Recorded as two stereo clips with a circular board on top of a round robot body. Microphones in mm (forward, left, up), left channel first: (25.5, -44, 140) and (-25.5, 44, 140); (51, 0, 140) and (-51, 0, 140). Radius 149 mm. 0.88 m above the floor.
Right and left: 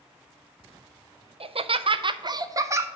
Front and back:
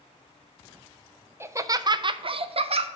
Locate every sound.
1.4 s laughter: 115° left, 0.7 m; by 2.9 s 175° right, 0.9 m